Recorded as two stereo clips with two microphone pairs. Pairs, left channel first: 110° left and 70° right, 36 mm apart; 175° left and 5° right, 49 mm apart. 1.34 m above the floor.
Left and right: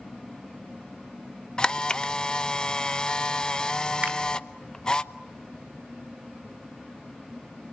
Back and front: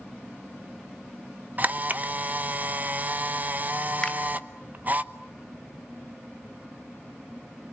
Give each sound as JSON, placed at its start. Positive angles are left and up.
{"t": 1.6, "sound": "a camera shutter", "azimuth_deg": 50, "distance_m": 0.8}
{"t": 4.0, "sound": "a finger snap", "azimuth_deg": -115, "distance_m": 3.0}